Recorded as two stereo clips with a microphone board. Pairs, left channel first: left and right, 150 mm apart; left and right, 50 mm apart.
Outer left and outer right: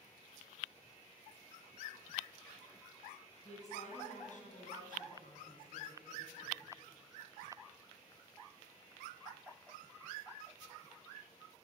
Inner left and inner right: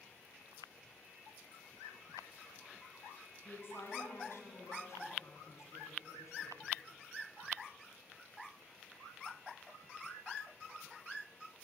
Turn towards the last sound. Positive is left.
turn(degrees=75)  # may be behind; listen again after turning